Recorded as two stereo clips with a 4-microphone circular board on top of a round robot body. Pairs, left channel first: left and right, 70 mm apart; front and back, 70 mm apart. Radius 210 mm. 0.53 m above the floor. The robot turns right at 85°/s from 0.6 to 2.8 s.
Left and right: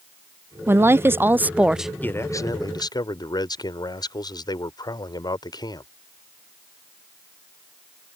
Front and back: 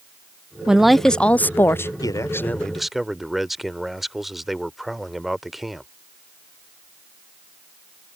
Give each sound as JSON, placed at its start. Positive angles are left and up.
{"t": 0.7, "sound": "a woman speaking", "azimuth_deg": -110}
{"t": 2.0, "sound": "a man speaking", "azimuth_deg": 25}